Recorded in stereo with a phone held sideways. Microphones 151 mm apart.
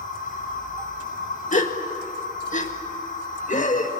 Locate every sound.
0.0 s a machine running: 65° left (ahead or behind), 9 m
1.5 s a gasp: 55° left (ahead or behind), 1.8 m